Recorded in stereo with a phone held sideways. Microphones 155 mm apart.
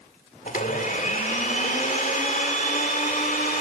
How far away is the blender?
About 2 m.